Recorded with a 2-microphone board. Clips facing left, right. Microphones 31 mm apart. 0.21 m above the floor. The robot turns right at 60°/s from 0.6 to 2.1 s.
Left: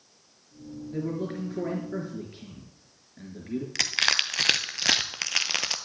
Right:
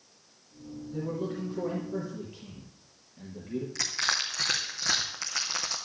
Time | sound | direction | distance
0.9 | a man speaking | 55° left | 3.5 m
3.8 | crushing | 80° left | 1.0 m